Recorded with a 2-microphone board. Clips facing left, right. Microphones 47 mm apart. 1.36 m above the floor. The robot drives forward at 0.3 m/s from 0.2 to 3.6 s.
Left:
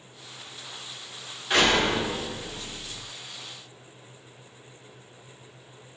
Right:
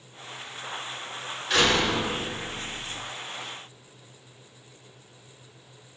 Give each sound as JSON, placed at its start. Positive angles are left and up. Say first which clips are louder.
{"t": 1.5, "sound": "a door slam", "louder": "left 1 dB", "side_deg": 20, "distance_m": 3.0}